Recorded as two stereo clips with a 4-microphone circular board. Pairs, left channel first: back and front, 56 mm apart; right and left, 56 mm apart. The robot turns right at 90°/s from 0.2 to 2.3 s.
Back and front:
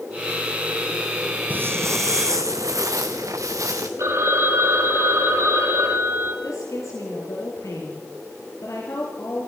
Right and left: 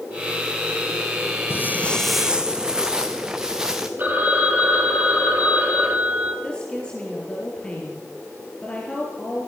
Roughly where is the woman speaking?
Behind.